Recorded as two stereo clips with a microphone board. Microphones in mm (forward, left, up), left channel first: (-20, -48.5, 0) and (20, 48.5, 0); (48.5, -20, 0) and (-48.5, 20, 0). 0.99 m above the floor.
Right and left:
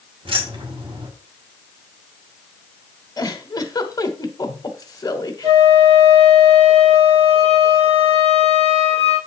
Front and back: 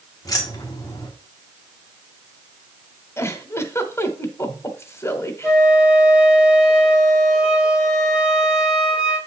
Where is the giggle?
80° right, 1.0 m.